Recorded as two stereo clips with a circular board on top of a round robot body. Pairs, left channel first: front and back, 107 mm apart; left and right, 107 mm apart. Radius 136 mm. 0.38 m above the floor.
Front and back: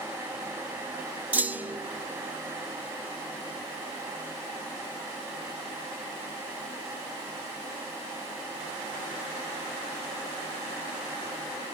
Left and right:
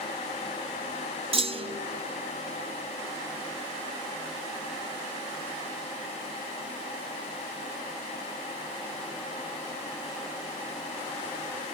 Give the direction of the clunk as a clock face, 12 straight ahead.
4 o'clock.